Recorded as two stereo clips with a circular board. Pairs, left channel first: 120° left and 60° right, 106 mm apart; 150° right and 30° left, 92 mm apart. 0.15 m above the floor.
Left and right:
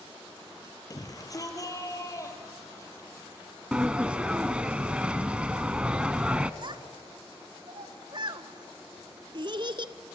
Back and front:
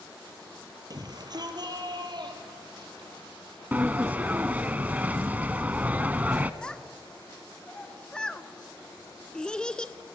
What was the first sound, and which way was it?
A shout, 70° left.